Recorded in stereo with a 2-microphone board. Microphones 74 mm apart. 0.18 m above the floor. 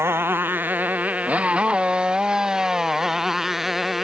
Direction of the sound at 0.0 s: 30° right (ahead or behind).